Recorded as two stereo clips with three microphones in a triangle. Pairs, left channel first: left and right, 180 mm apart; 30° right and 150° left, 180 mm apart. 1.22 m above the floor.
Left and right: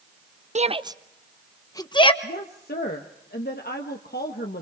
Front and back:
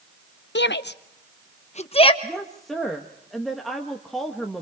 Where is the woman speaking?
60° left, 1.3 m.